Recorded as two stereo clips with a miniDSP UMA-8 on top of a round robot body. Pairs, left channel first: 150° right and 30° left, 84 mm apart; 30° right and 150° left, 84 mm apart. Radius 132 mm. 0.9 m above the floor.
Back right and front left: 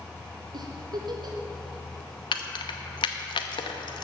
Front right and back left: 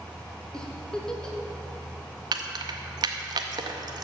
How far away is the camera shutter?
I don't hear a camera shutter.